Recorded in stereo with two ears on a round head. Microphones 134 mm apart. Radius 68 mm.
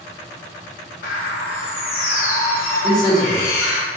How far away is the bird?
About 2.5 m.